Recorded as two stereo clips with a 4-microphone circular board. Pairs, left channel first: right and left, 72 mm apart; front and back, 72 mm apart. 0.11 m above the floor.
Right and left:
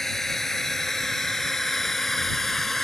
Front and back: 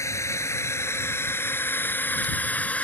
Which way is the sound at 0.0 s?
5° right.